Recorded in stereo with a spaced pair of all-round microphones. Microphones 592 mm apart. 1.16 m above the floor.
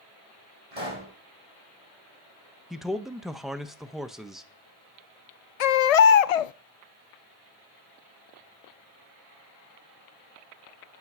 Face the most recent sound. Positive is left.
turn(degrees=85)